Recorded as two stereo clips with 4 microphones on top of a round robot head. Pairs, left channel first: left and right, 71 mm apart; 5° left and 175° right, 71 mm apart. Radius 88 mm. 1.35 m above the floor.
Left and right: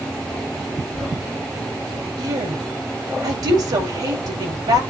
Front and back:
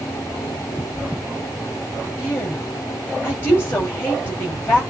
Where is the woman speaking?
60° right, 7 m.